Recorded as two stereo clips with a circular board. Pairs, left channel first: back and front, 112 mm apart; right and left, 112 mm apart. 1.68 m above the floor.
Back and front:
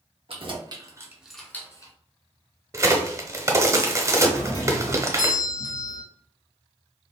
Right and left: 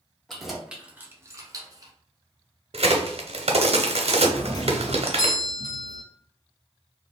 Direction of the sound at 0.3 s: Straight ahead.